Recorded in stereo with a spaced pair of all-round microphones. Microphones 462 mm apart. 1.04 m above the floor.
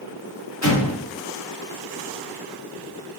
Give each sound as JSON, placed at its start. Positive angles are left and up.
{"t": 0.6, "sound": "an explosion", "side_deg": 35, "distance_m": 1.2}